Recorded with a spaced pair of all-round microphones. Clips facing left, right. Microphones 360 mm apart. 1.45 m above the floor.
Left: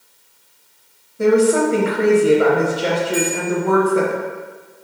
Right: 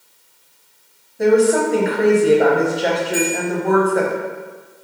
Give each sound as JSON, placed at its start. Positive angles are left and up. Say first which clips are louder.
{"t": 1.2, "sound": "a woman speaking", "louder": "even", "side_deg": 10, "distance_m": 0.7}
{"t": 3.1, "sound": "a bell", "louder": "even", "side_deg": -35, "distance_m": 1.4}